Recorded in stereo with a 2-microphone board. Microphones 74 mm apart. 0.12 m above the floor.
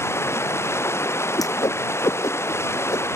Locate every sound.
0.0 s running water: 35° left (ahead or behind)
1.4 s a whoosh: 55° left (ahead or behind)